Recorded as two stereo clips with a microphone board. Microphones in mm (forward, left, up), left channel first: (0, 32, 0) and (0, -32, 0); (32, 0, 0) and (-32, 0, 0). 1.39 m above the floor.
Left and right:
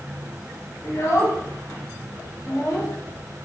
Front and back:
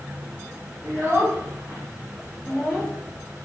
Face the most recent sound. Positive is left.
turn(degrees=90)